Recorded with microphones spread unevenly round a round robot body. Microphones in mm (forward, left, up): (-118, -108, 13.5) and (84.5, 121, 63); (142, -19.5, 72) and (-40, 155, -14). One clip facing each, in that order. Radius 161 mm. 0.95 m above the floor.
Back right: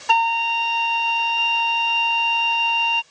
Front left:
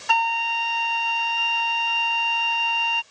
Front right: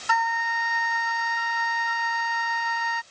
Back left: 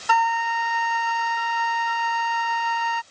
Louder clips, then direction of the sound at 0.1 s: Back right 4 dB, back left 5 dB; 175° right.